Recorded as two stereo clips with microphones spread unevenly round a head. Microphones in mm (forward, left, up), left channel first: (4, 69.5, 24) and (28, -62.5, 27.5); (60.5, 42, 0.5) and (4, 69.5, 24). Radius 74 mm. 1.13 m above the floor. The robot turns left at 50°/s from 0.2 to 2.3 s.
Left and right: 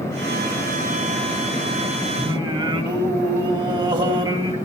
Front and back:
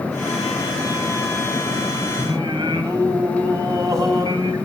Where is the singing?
135° right, 3 m; by 4.5 s 140° right, 3 m.